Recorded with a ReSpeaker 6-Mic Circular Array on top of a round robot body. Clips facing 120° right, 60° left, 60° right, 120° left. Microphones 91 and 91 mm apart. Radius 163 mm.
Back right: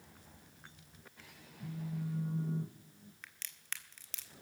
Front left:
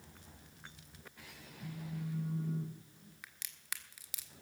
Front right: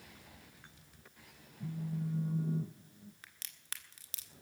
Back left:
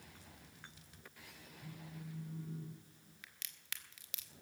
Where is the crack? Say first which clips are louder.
Even, front right 1 dB; 20° right, 1.6 m.